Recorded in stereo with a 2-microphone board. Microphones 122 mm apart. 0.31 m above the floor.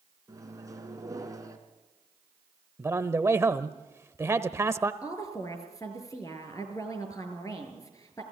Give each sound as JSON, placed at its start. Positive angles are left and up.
{"t": 0.3, "sound": "a microwave", "side_deg": -30, "distance_m": 3.0}
{"t": 2.8, "sound": "a man speaking", "side_deg": -20, "distance_m": 0.9}
{"t": 5.0, "sound": "a woman speaking", "side_deg": 30, "distance_m": 5.0}